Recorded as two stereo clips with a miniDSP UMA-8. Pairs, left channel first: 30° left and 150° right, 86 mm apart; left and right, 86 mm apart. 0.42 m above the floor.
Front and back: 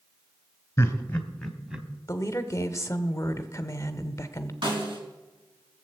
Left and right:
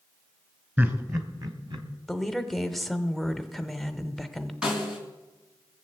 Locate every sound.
0.8 s laughter: 25° right, 2 m; by 1.9 s 70° right, 2.5 m
2.1 s a woman speaking: straight ahead, 1.0 m
4.6 s a snare drum: 170° right, 4.5 m